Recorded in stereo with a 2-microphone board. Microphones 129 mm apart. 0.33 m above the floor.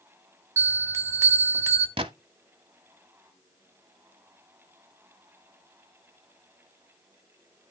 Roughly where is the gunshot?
Right.